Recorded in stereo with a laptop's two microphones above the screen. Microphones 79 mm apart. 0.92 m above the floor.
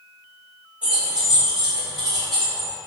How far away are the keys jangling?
About 1.4 m.